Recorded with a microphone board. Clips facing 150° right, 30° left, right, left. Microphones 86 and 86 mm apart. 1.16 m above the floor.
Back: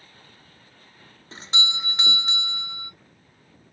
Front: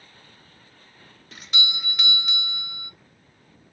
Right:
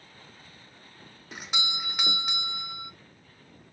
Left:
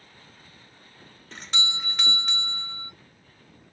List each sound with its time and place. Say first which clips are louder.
1.3 s a doorbell: back 1 dB, left 1 dB; 160° right, 0.5 m